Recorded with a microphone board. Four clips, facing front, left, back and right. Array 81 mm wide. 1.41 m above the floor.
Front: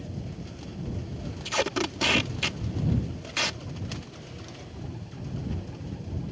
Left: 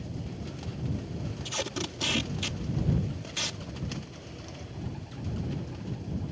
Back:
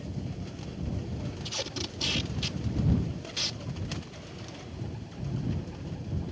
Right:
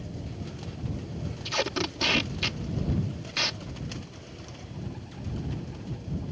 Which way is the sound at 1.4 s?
30° right.